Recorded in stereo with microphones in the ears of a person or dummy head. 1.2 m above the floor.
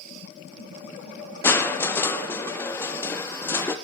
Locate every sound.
1.4 s crushing: 10° left (ahead or behind), 0.5 m